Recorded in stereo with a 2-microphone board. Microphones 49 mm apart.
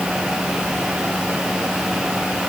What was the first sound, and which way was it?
Only background noise.